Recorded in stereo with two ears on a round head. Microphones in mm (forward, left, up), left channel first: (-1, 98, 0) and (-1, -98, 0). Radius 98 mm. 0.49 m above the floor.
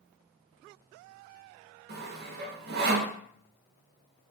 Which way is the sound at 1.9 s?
45° right (ahead or behind).